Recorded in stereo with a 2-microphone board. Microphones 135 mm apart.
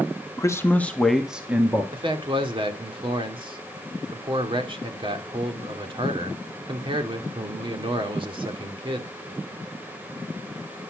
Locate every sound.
0.4 s a man speaking: 25° left (ahead or behind), 1.1 m; by 1.8 s 15° right (ahead or behind), 1.3 m
1.9 s a man speaking: 40° right (ahead or behind), 1.6 m